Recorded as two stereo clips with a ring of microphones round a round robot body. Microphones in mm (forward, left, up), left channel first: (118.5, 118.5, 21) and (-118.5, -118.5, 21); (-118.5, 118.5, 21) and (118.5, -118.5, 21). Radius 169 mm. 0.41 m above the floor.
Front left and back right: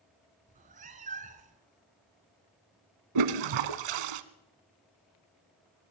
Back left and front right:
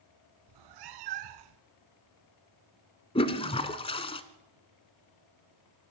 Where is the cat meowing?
65° right, 1.2 m.